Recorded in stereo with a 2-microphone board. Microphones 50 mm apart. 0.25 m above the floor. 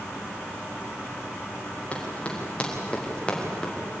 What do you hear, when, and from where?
1.9 s running footsteps: 30° left (ahead or behind), 7.5 m; by 3.7 s 15° left (ahead or behind), 5.5 m